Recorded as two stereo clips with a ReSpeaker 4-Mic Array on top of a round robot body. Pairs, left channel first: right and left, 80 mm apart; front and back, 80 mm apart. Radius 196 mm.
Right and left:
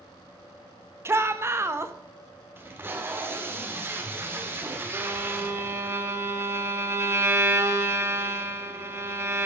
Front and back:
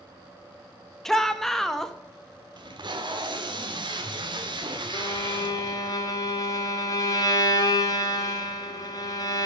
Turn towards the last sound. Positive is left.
turn(degrees=35)